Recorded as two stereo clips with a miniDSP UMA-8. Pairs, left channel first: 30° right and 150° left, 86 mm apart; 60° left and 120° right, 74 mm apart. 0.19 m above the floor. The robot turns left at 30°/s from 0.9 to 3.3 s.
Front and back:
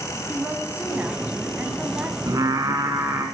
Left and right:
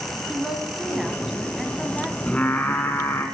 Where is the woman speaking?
175° left, 1.2 m; by 2.2 s 135° left, 1.2 m.